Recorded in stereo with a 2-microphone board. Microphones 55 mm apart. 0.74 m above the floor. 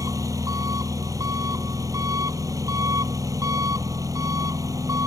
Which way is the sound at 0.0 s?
90° right.